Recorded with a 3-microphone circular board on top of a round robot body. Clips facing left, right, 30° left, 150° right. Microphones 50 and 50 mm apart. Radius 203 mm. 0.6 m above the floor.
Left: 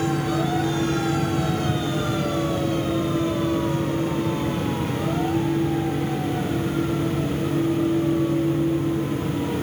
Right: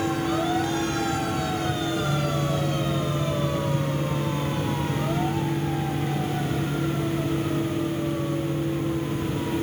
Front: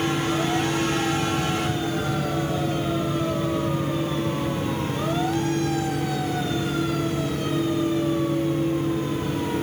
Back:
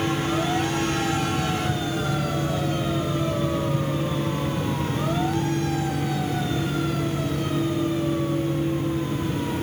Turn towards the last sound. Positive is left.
No sound to turn to.